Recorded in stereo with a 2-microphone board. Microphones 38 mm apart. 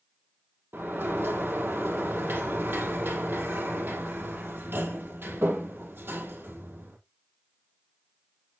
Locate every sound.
0.7 s a sliding door: 75° right (ahead or behind), 2.5 m